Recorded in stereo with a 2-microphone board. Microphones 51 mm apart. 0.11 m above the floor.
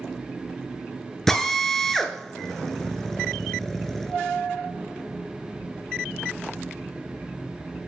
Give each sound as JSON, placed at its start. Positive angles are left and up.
{"t": 1.3, "sound": "a drill", "side_deg": 5, "distance_m": 0.6}